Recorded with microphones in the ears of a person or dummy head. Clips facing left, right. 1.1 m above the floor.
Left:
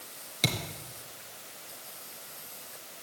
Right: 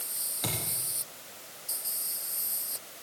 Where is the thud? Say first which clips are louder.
Left 4 dB; 40° left (ahead or behind), 3.5 m.